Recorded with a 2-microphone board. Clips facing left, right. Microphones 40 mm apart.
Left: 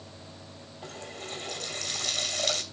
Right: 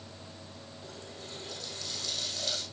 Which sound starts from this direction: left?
A running tap, at 0.8 s.